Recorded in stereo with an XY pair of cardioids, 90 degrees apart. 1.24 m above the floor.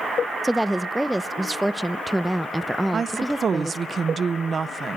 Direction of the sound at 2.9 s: 45° right.